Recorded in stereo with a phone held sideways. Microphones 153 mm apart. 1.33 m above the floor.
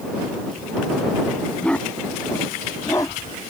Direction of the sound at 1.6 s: 5° left (ahead or behind).